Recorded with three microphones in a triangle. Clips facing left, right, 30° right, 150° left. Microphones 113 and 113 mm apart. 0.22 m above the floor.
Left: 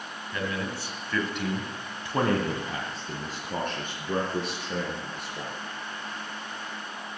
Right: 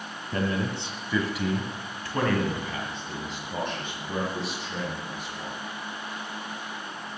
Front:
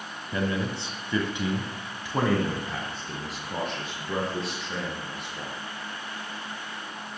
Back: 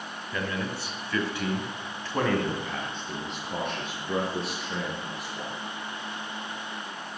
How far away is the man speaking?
About 1.9 m.